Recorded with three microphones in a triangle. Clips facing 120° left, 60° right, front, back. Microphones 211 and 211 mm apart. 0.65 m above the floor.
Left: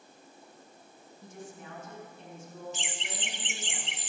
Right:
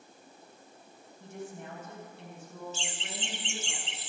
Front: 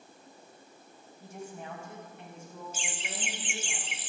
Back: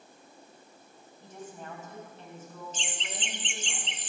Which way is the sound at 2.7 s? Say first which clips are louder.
Even, even; 70° left.